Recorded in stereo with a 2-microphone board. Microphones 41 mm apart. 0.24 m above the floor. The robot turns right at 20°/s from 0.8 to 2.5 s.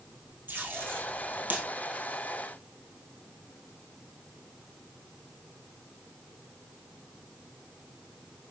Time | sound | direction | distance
0.5 | tape being pulled | 55° right (ahead or behind) | 2 m